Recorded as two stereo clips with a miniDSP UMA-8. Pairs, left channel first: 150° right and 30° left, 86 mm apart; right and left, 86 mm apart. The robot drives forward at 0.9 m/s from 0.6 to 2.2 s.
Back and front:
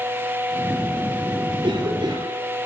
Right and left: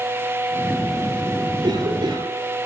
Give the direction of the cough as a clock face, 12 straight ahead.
10 o'clock.